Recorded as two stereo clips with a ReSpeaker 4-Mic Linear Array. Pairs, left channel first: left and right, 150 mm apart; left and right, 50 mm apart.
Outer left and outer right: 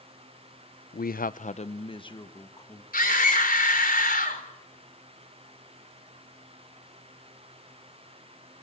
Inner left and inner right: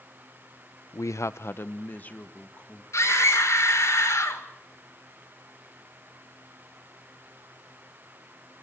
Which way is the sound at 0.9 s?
70° left (ahead or behind).